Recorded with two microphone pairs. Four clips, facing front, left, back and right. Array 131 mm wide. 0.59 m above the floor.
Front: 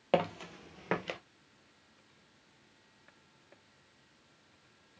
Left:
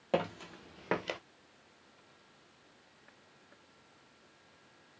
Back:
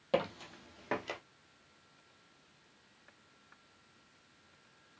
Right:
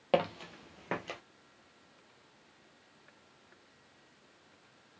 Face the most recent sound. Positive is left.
turn(degrees=75)